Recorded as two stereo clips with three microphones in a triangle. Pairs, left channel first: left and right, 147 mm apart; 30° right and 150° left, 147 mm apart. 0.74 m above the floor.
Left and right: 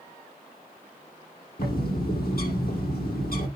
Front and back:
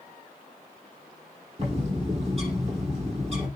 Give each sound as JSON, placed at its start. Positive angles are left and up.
{"t": 1.6, "sound": "a bird", "azimuth_deg": 100, "distance_m": 7.5}